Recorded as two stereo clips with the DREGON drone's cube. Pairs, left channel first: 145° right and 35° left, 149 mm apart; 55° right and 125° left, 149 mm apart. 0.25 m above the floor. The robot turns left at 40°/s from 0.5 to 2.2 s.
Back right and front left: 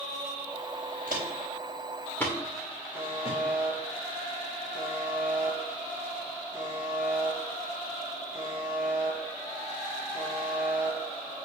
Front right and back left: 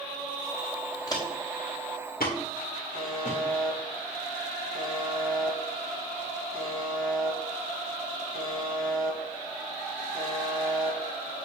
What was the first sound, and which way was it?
Footsteps, 10° left.